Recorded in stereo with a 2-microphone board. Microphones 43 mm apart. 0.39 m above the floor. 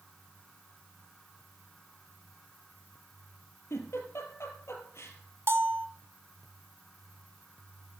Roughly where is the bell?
Right.